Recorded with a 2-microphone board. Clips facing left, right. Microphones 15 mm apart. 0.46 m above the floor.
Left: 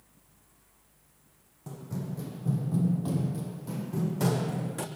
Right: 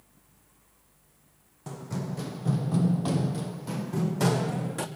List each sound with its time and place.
1.7 s running footsteps: 35° right (ahead or behind), 1.1 m; by 4.9 s 15° right (ahead or behind), 1.3 m